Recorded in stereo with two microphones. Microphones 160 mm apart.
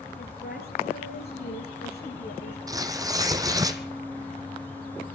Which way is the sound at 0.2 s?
65° left (ahead or behind).